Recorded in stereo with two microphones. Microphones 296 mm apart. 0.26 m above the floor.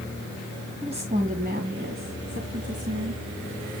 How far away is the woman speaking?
About 2.0 m.